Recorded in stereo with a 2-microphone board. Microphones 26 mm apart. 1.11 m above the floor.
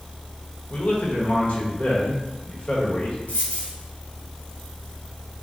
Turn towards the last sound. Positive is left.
turn(degrees=55)  # may be behind; listen again after turning